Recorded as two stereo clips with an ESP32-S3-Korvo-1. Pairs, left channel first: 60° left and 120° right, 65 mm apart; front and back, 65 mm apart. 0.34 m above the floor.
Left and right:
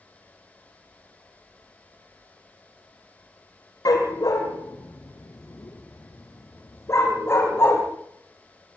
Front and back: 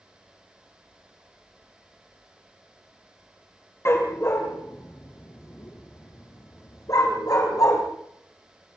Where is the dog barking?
45° left, 3.5 m; by 7.8 s 10° left, 5 m.